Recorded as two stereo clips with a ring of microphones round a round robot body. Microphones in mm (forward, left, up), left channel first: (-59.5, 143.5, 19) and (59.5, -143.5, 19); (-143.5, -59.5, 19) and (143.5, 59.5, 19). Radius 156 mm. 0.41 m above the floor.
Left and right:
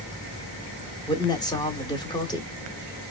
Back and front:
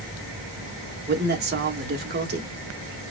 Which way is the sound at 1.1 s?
45° left.